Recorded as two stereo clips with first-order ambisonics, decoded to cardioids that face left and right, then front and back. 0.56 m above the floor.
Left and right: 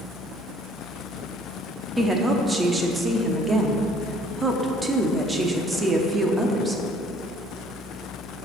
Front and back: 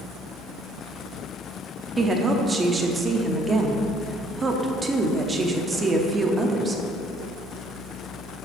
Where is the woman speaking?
145° right, 0.7 m.